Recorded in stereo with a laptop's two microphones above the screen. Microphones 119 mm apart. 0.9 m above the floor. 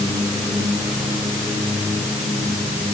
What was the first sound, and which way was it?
Only background noise.